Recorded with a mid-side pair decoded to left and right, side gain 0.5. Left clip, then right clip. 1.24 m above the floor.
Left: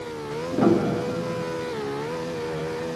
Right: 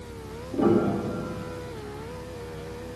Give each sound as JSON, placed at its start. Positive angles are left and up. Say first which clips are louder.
{"t": 0.5, "sound": "a piano", "louder": "left 1 dB", "azimuth_deg": 60, "distance_m": 1.2}